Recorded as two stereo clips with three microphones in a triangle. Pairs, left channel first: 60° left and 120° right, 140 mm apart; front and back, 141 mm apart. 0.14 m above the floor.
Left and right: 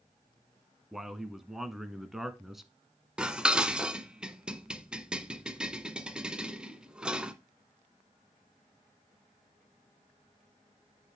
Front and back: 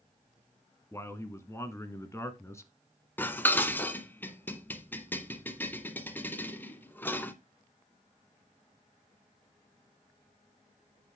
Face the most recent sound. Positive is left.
turn(degrees=-50)